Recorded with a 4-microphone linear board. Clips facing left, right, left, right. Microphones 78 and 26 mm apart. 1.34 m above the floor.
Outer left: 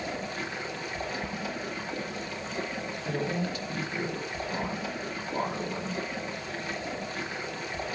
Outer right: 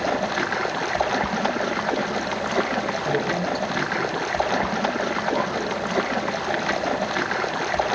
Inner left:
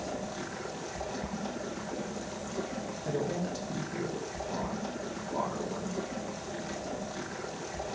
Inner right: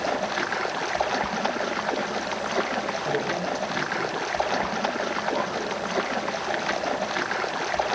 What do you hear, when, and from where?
0.0 s running water: 70° right (ahead or behind), 0.8 m
3.0 s a woman speaking: 35° right (ahead or behind), 4 m